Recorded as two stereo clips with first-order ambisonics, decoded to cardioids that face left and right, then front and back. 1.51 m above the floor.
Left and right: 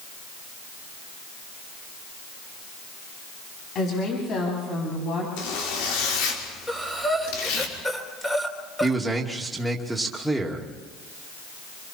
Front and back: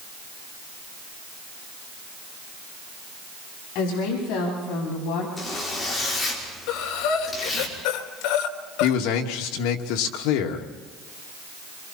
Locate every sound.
3.8 s a woman speaking: 30° left, 9 m; by 5.3 s 35° left, 8.5 m
5.4 s a zipper: 80° left, 5 m
6.7 s breathing: 10° left, 3 m
8.8 s a man speaking: 5° right, 3 m